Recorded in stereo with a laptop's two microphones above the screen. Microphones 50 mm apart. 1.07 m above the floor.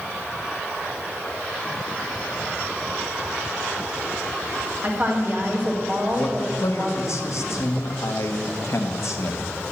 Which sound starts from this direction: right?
A woman speaking, at 4.8 s.